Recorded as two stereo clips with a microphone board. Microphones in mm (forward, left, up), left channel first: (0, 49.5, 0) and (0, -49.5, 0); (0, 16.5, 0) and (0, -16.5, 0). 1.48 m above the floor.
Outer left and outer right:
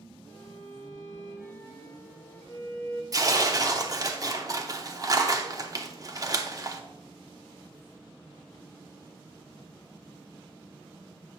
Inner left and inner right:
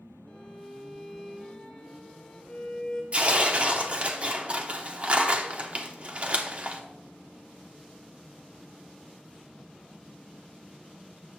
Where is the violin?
25° left (ahead or behind), 1.4 m.